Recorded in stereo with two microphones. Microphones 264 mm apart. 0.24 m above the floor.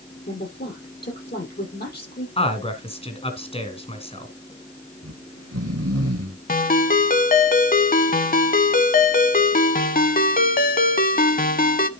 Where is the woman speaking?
40° left (ahead or behind), 6.5 m.